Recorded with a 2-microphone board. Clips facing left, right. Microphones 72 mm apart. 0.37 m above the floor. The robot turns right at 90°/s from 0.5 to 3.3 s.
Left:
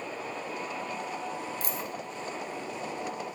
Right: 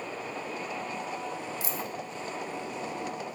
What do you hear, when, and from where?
1.6 s a dropped coin: 45° left (ahead or behind), 3 m; by 1.9 s 70° left (ahead or behind), 3 m